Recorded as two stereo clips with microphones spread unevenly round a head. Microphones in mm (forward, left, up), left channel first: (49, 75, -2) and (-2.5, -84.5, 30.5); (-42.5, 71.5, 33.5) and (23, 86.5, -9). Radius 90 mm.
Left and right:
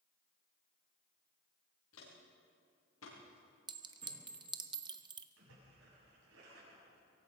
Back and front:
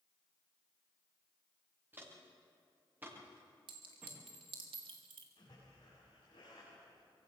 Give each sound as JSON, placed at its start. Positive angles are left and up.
{"t": 1.9, "sound": "footsteps", "azimuth_deg": 80, "distance_m": 8.5}
{"t": 3.7, "sound": "a clink", "azimuth_deg": -50, "distance_m": 1.1}
{"t": 5.4, "sound": "a splash", "azimuth_deg": -120, "distance_m": 7.0}